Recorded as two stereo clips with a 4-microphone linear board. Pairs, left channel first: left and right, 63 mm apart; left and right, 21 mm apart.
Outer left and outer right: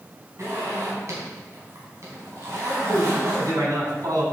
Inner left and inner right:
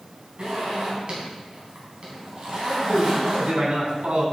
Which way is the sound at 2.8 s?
70° right (ahead or behind).